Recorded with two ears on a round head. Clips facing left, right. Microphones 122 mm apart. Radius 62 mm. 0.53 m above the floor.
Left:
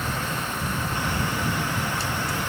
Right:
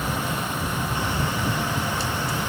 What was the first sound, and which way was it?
Only background noise.